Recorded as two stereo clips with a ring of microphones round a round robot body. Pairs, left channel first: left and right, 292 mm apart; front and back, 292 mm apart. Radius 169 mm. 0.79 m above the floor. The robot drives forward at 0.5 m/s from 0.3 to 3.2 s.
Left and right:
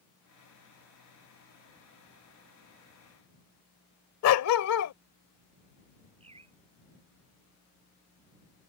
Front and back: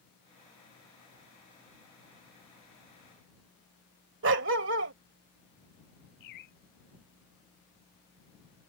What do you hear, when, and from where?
4.2 s a dog barking: 125° left
6.2 s a bird: 15° right